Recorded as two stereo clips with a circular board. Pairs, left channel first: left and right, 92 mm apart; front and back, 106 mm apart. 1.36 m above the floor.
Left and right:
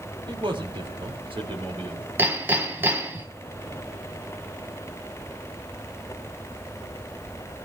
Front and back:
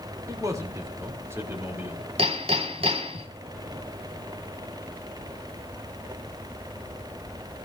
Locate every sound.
0.3 s a man speaking: 120° right, 4 m; by 2.1 s 105° right, 4.5 m
2.2 s hammering: 160° right, 3 m